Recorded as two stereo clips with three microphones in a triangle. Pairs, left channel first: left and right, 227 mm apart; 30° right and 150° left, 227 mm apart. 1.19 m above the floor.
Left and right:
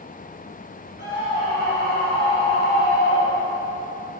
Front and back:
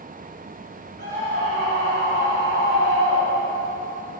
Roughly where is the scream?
Behind left.